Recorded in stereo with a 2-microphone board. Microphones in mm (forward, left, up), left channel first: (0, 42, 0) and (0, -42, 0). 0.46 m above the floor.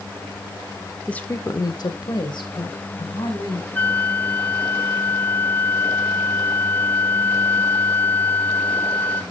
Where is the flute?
20° left (ahead or behind), 0.5 m.